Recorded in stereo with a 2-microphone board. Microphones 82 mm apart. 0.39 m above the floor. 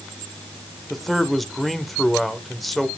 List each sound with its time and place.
0.9 s a man speaking: centre (ahead or behind), 1.1 m